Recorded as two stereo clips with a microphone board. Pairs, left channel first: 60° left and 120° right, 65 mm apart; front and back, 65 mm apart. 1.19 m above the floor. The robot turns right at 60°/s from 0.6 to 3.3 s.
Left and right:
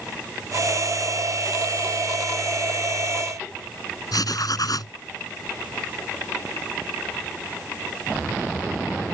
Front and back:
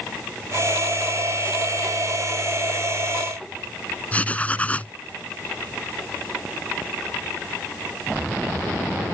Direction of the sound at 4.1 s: 65° left.